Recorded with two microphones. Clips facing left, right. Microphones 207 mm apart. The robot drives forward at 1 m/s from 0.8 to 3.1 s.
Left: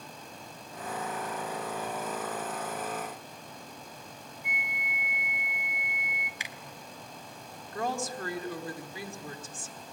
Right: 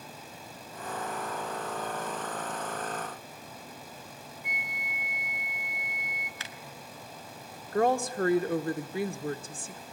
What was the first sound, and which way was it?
A flute, 55° right (ahead or behind).